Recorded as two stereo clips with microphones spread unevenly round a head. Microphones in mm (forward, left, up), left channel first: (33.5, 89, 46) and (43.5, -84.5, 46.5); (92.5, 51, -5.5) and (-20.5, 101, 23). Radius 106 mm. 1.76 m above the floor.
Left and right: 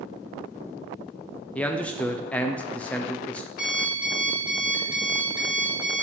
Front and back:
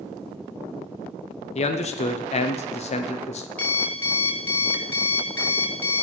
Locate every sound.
1.6 s a man speaking: 10° left, 0.7 m
3.6 s an alarm clock: 60° left, 2.5 m